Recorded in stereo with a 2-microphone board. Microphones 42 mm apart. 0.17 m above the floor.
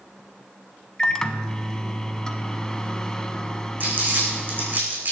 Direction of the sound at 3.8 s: 50° right (ahead or behind).